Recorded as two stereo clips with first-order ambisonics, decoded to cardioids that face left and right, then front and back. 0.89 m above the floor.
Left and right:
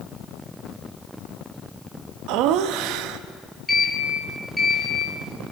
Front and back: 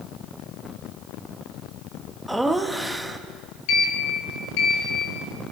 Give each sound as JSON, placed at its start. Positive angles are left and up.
{"t": 2.3, "sound": "laughter", "azimuth_deg": -90, "distance_m": 1.1}
{"t": 3.7, "sound": "a sliding door", "azimuth_deg": 5, "distance_m": 3.0}